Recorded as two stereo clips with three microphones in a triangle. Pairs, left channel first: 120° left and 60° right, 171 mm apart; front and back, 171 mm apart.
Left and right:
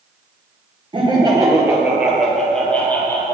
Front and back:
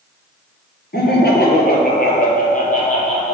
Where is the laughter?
Straight ahead, 3 m; by 3.4 s 45° left, 3.5 m.